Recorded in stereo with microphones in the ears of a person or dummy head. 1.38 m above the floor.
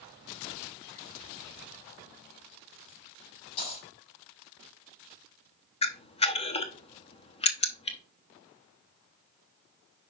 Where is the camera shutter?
40° left (ahead or behind), 0.8 m.